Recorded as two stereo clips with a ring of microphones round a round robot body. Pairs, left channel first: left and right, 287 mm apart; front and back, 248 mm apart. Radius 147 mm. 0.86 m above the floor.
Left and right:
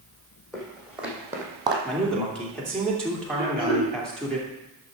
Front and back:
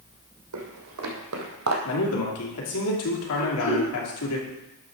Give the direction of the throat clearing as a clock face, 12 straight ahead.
1 o'clock.